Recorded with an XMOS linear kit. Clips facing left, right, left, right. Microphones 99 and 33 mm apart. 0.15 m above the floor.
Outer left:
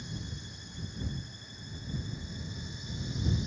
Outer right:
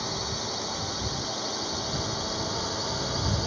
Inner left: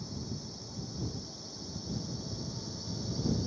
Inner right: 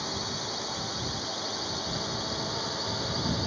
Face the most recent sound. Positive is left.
turn(degrees=-65)  # may be behind; listen again after turning